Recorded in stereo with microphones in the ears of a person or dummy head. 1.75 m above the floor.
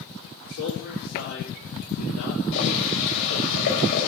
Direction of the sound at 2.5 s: 65° left (ahead or behind).